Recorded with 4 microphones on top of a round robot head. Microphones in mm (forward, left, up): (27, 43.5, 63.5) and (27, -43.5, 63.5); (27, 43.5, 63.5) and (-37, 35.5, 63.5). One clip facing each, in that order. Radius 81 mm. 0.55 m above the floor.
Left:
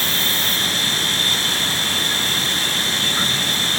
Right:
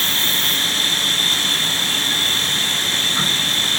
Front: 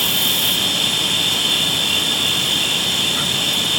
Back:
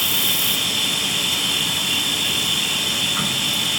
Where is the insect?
120° right, 6.5 m.